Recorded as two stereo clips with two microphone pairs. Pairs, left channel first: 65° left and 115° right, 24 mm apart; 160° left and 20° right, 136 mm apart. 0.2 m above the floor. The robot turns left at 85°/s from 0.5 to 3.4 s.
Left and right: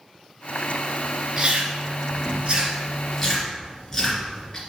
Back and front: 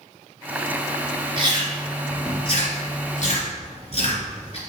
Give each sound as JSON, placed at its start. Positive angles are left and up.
{"t": 1.4, "sound": "chewing", "azimuth_deg": -65, "distance_m": 2.5}